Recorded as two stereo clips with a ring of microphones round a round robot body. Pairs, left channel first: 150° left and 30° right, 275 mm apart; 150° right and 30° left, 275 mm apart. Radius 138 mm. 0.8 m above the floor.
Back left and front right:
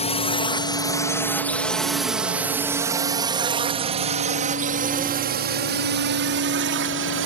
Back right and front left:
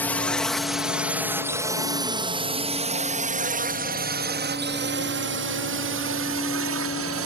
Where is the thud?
I don't hear a thud.